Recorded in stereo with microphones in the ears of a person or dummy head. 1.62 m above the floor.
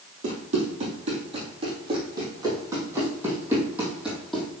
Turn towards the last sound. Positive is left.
turn(degrees=0)  # may be behind; listen again after turning